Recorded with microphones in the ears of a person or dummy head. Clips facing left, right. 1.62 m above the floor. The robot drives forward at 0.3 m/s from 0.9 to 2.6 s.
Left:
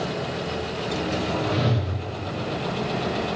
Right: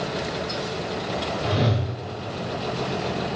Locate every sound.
1.4 s a whoosh: 35° right (ahead or behind), 0.7 m; by 1.9 s 30° right (ahead or behind), 0.8 m